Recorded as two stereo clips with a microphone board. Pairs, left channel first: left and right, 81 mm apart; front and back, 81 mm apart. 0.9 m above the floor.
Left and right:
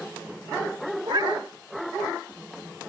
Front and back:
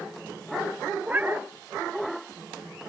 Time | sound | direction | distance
1.0 | a cat meowing | 115° right | ?